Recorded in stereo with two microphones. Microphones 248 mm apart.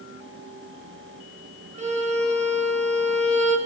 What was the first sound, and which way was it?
A violin, 25° right (ahead or behind).